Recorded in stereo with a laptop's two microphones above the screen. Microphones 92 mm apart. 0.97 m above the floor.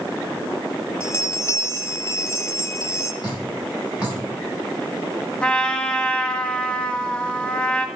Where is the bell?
25° left (ahead or behind), 1.9 m.